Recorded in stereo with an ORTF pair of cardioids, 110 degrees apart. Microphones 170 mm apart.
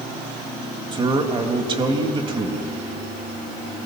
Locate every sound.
0.9 s a man speaking: 30° right, 2 m